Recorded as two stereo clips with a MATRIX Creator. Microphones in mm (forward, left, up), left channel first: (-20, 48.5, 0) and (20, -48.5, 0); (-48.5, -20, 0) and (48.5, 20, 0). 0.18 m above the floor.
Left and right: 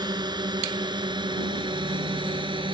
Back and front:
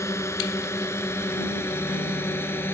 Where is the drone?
100° right; by 2.8 s 95° right.